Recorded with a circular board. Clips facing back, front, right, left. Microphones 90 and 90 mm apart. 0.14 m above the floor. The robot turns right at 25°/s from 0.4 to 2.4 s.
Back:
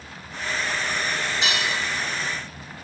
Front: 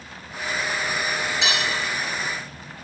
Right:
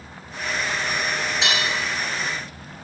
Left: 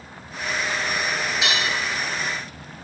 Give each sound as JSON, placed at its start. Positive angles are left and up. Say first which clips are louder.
{"t": 1.4, "sound": "cutlery clinking", "louder": "front 1 dB, right 1 dB", "azimuth_deg": -145, "distance_m": 1.4}